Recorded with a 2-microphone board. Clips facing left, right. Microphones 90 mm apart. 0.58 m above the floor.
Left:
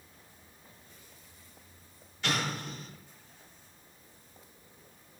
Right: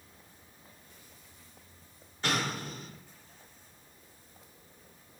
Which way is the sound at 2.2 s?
40° right (ahead or behind).